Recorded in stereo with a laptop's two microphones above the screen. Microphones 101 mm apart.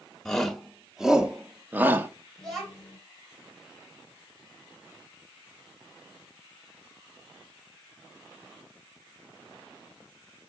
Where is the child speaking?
Centre (ahead or behind), 3.5 m.